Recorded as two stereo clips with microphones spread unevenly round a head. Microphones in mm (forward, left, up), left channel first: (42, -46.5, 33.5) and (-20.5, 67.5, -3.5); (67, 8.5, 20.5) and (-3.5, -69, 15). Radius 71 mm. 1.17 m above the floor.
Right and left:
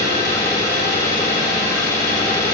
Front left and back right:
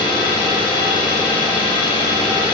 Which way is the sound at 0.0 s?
5° left.